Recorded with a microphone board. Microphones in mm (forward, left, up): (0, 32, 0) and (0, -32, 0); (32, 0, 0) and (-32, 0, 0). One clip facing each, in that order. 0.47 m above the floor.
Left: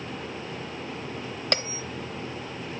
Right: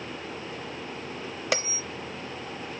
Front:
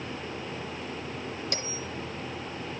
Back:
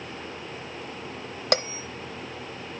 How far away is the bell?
About 0.7 m.